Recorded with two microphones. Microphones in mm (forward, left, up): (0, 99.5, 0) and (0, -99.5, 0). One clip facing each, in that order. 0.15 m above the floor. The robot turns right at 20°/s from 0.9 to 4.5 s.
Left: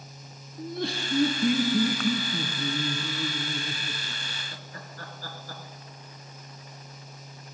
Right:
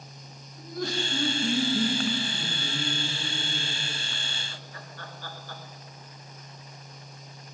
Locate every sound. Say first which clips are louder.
0.6 s laughter: even; 45° left, 1.9 m; by 5.6 s 115° left, 1.9 m